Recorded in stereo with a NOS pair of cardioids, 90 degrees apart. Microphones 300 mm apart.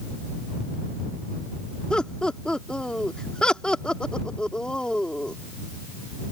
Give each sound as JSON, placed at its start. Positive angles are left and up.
{"t": 1.9, "sound": "laughter", "azimuth_deg": 5}